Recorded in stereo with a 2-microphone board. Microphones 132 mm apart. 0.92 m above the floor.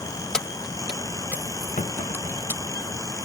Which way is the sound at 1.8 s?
60° left (ahead or behind).